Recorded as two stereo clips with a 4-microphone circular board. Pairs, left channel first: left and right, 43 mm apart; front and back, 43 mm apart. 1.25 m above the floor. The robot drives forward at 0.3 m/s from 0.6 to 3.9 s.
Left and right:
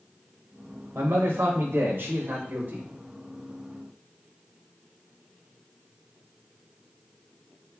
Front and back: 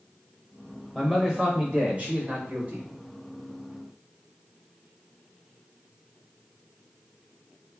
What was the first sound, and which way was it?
A man speaking, 95° right.